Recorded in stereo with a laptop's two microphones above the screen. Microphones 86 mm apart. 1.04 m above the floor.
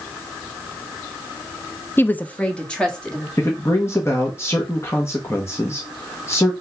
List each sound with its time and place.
2.0 s a woman speaking: 25° left (ahead or behind), 0.5 m; by 3.3 s 10° left (ahead or behind), 2.5 m
3.4 s a man speaking: 30° left (ahead or behind), 1.2 m